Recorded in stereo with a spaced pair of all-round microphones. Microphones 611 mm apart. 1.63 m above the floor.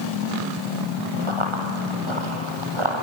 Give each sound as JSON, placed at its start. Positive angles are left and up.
{"t": 1.3, "sound": "running footsteps", "side_deg": -50, "distance_m": 4.0}